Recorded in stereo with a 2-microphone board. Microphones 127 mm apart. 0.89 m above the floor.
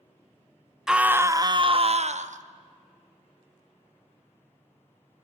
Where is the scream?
5° right (ahead or behind), 0.9 m; by 2.4 s 70° right (ahead or behind), 1.1 m.